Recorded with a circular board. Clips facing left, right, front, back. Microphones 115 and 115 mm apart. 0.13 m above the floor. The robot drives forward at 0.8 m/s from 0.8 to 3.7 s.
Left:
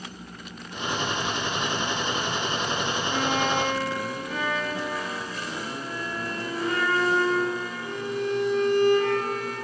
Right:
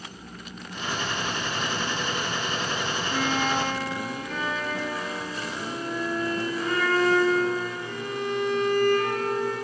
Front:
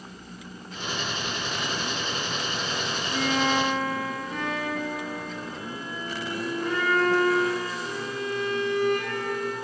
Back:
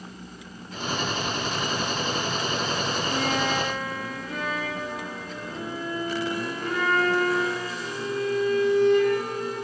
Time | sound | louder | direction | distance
3.1 | a violin | even, front 3 dB | 165° left | 3 m